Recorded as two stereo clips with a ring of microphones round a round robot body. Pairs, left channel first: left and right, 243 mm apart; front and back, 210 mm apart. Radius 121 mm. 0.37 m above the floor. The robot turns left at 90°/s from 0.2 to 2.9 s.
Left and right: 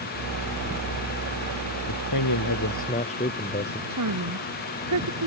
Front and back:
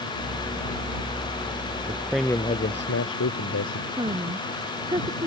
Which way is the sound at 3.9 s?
105° right.